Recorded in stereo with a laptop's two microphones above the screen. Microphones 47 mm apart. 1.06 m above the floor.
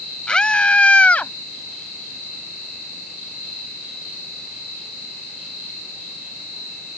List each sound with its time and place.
0.3 s a scream: 20° left (ahead or behind); by 1.3 s 30° left (ahead or behind)